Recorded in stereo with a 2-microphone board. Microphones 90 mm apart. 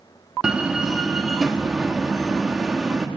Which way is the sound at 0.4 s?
10° right (ahead or behind).